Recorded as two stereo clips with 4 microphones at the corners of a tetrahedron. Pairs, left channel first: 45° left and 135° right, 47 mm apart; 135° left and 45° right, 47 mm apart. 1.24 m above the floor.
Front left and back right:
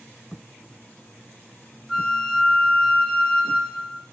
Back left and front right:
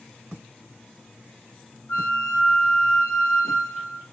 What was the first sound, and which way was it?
A flute, 125° left.